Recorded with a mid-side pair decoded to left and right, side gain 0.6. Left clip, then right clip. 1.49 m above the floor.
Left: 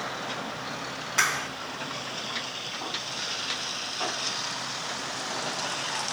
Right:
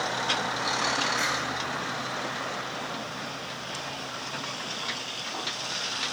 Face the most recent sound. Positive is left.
turn(degrees=65)